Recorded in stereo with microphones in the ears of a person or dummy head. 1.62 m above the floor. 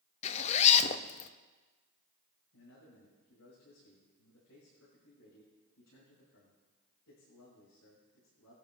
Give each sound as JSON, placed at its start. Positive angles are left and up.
{"t": 0.2, "sound": "a zipper", "side_deg": 35, "distance_m": 0.6}
{"t": 2.5, "sound": "a man speaking", "side_deg": 75, "distance_m": 7.0}